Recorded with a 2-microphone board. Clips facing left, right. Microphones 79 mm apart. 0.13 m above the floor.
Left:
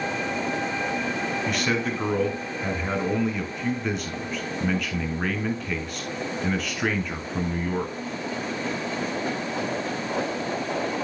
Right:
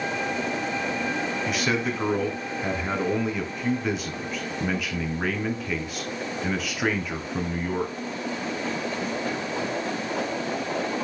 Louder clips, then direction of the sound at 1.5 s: Even; 5° right (ahead or behind).